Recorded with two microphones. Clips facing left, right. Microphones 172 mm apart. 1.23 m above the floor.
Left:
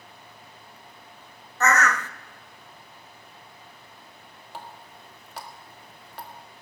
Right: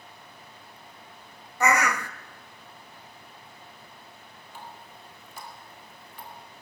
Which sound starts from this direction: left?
A running tap, at 4.5 s.